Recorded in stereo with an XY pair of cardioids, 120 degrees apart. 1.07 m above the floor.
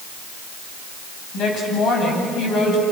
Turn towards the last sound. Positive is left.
turn(degrees=65)